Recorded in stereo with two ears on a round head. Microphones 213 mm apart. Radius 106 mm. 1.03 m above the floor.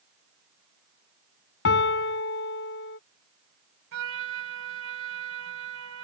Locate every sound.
1.6 s a piano: 60° left (ahead or behind)
3.9 s a trumpet: 65° right (ahead or behind)